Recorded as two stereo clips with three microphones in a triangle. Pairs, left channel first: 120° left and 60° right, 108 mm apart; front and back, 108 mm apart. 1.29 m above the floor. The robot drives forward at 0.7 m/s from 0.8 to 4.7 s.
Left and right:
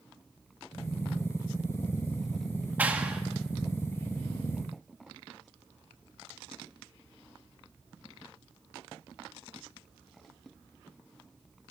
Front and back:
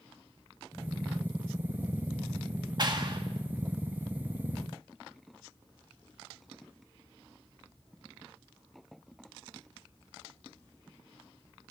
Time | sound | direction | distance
2.8 | a clap | 135° right | 1.6 m